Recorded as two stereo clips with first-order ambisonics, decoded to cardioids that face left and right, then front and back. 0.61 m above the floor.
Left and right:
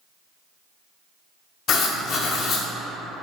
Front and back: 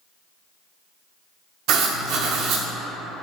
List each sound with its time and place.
1.7 s writing: 140° left, 0.5 m